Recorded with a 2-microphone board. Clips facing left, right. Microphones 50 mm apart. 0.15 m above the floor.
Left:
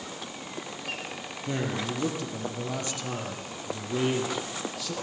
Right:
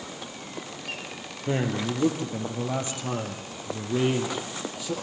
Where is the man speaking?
25° right (ahead or behind), 4 m; by 4.9 s 15° right (ahead or behind), 5.5 m.